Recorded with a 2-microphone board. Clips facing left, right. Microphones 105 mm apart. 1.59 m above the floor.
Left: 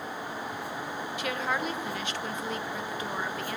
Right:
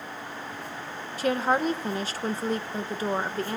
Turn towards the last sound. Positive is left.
turn(degrees=-35)  # may be behind; listen again after turning